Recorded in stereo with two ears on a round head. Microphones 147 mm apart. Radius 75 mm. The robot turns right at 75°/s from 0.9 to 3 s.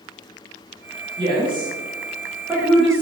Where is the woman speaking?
25° right (ahead or behind), 0.8 m; by 3.0 s 5° left (ahead or behind), 0.8 m.